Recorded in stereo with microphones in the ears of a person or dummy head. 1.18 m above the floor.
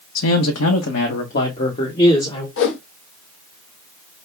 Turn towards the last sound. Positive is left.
turn(degrees=70)  # may be behind; listen again after turning